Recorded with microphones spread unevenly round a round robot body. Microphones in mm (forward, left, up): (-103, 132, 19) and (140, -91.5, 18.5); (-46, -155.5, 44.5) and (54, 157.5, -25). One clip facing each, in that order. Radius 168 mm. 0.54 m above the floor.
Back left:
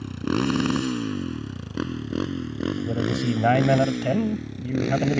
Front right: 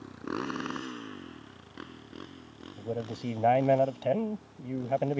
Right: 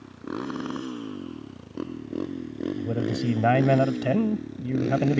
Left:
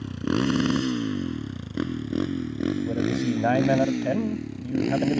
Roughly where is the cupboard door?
I don't hear a cupboard door.